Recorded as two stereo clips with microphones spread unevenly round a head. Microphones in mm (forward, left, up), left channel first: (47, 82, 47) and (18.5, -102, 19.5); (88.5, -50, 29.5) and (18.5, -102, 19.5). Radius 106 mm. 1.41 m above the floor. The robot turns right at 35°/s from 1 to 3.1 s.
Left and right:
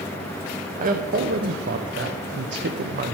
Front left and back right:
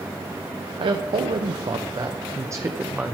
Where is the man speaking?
145° right, 0.9 m; by 3.1 s 70° right, 0.9 m.